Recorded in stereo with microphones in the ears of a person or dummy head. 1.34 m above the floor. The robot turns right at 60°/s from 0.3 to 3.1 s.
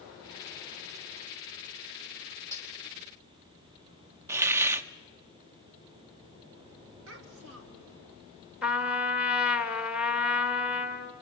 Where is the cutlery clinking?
20° right (ahead or behind), 2.5 m; by 2.7 s 10° right (ahead or behind), 2.5 m.